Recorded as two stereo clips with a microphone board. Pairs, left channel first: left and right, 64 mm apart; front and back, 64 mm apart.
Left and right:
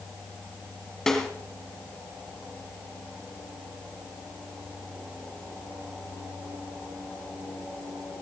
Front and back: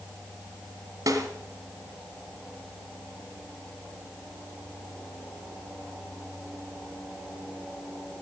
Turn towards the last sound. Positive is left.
turn(degrees=170)